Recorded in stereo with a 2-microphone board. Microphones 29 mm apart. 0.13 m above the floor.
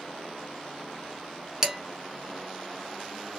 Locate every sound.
1.6 s dishes clattering: 25° right (ahead or behind), 0.8 m